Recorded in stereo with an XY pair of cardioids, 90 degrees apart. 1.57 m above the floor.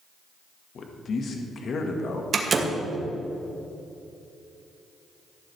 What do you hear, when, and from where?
0.8 s a man speaking: 60° left, 1.7 m
2.3 s a door slam: 45° right, 1.8 m